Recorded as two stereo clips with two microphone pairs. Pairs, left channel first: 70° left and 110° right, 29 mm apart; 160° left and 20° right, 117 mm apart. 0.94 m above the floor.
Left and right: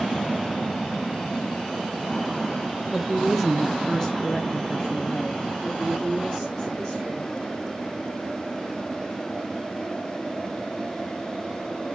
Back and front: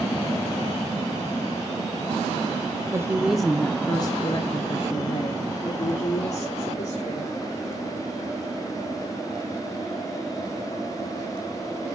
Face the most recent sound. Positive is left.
turn(degrees=145)